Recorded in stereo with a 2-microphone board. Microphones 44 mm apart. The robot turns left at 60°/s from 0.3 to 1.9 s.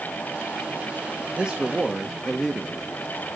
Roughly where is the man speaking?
Behind right.